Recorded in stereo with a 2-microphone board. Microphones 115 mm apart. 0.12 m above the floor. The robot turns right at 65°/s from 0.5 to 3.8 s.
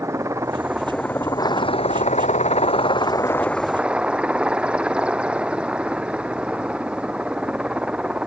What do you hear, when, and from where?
0.0 s a helicopter: 25° right; by 8.3 s 170° right